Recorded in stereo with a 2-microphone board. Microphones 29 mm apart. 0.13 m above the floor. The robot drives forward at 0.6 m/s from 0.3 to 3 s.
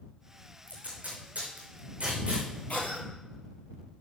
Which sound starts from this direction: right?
Tape being pulled, at 0.7 s.